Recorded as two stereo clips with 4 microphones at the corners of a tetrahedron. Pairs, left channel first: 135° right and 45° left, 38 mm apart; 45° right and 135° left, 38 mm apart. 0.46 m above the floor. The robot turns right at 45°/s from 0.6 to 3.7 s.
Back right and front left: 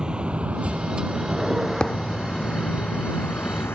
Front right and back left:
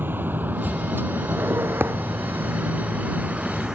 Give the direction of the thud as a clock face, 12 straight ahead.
7 o'clock.